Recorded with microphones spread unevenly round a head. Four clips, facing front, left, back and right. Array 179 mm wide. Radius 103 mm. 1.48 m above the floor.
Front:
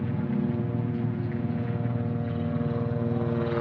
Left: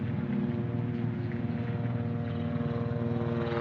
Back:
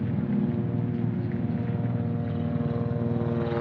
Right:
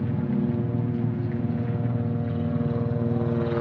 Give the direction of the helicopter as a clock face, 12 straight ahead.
2 o'clock.